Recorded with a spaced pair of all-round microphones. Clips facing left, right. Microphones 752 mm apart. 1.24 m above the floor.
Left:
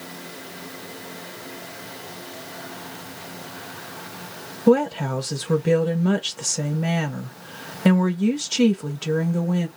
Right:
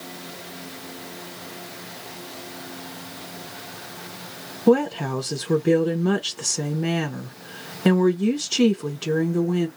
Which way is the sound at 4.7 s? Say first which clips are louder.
Left 1 dB; 20° left (ahead or behind).